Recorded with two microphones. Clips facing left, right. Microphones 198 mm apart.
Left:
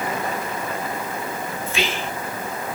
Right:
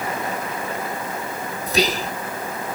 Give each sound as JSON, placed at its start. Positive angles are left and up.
{"t": 1.7, "sound": "whispering", "side_deg": -40, "distance_m": 0.6}